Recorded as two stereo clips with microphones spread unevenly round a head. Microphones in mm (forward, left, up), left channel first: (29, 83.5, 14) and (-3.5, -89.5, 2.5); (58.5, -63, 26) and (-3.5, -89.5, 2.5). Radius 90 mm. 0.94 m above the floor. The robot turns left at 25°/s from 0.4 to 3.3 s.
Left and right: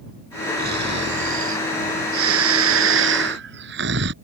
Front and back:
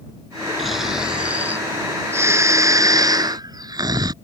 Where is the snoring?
65° right; by 4.1 s 135° right.